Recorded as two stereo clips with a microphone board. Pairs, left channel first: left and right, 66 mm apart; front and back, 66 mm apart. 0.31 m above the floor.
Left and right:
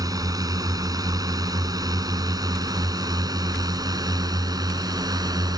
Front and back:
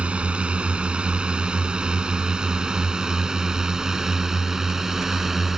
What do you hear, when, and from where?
0.0 s a drone: 110° right; by 5.6 s 95° right